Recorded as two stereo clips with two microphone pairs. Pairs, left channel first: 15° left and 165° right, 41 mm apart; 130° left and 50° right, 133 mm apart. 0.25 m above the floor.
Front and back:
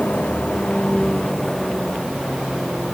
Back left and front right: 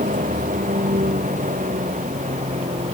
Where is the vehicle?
40° right; by 2.9 s 80° right.